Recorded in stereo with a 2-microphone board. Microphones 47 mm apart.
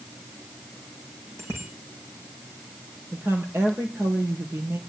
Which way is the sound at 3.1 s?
75° right (ahead or behind).